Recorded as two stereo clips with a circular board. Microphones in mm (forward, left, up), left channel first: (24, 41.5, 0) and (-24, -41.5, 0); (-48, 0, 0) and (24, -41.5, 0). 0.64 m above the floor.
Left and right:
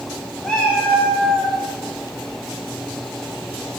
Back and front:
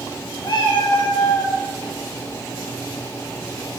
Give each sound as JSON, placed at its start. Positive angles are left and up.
{"t": 0.4, "sound": "a cat meowing", "azimuth_deg": 145, "distance_m": 1.1}